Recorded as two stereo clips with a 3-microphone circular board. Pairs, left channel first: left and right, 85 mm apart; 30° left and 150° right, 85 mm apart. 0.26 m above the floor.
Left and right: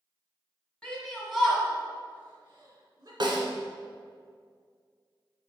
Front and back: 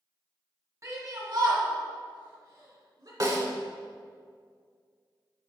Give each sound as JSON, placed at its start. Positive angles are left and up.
{"t": 0.8, "sound": "a shout", "azimuth_deg": 170, "distance_m": 2.5}
{"t": 3.2, "sound": "a snare drum", "azimuth_deg": -110, "distance_m": 1.4}